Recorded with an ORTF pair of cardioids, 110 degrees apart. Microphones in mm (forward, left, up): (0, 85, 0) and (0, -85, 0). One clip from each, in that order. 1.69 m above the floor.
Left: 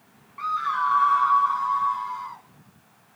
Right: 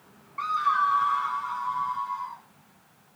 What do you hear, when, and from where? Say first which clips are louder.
0.4 s a scream: right 1 dB; 15° right, 0.8 m; by 2.4 s 35° left, 3.5 m